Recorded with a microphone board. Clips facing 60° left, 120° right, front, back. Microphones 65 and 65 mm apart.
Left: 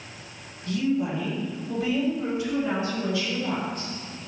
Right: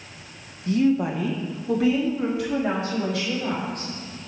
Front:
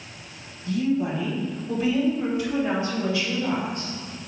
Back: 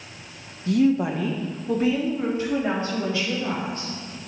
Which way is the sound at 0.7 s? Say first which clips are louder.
Right 5 dB, back 4 dB; straight behind.